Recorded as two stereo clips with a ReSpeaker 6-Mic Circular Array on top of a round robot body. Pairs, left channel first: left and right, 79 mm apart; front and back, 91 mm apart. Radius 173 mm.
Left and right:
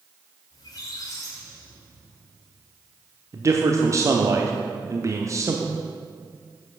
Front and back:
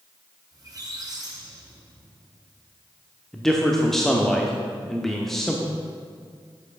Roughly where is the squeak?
Behind left.